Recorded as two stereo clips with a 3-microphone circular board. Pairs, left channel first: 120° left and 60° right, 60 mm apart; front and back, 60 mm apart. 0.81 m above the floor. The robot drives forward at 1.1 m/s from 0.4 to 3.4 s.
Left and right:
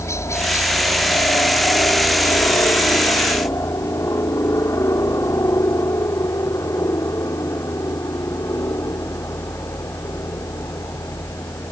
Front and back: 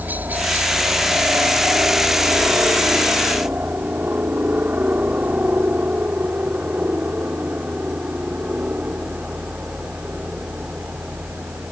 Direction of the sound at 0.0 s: 130° left.